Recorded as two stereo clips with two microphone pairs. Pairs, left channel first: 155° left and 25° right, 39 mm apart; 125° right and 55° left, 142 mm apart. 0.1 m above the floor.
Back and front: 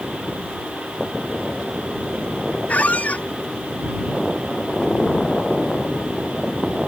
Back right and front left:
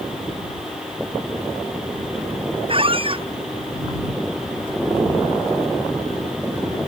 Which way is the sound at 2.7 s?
105° left.